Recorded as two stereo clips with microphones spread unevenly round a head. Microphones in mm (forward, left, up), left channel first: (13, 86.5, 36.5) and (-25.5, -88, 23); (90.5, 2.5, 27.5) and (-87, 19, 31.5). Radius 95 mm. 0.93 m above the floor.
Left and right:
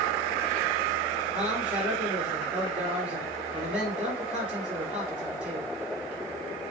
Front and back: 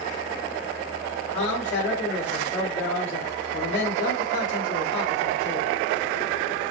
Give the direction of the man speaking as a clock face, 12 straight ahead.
1 o'clock.